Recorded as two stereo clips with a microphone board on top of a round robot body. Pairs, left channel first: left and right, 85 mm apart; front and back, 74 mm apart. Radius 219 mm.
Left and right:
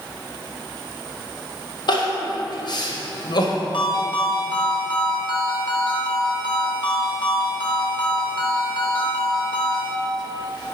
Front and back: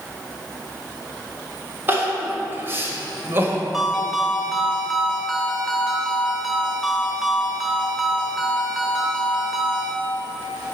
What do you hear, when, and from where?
1.9 s crying: 120° left, 1.6 m
3.7 s a ringtone: 90° left, 1.8 m